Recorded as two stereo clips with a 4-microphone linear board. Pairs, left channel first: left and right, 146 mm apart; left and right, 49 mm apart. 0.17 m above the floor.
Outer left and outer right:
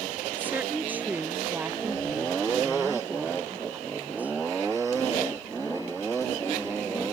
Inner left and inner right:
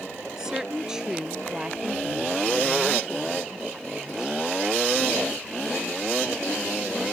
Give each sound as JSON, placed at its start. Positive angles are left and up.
{"t": 0.4, "sound": "a woman speaking", "side_deg": -10}